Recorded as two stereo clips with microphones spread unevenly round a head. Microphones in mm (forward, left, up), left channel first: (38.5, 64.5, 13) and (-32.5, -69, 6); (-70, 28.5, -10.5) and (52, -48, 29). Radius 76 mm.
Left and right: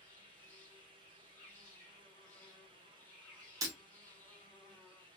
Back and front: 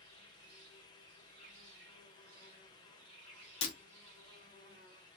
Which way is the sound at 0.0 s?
15° right.